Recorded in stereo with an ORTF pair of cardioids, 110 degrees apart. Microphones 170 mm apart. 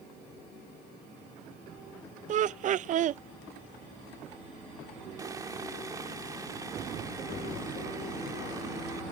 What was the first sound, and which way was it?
Laughter, 45° right.